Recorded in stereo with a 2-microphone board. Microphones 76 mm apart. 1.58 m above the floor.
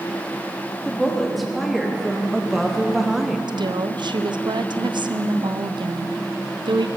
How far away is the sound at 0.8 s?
About 4 m.